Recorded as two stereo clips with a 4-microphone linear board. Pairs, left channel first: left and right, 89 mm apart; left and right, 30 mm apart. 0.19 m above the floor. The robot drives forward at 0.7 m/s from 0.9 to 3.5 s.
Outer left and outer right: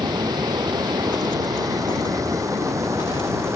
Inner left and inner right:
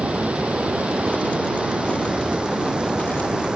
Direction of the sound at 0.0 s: 50° right (ahead or behind).